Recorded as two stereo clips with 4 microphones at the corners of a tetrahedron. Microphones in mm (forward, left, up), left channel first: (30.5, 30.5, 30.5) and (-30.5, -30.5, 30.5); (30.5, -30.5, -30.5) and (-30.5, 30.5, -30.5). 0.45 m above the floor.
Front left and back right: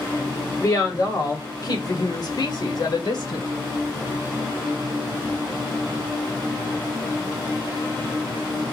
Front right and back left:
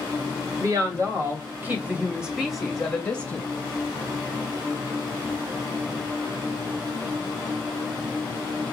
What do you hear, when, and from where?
0.6 s a woman speaking: 90° left, 2.5 m; by 3.5 s 25° left, 2 m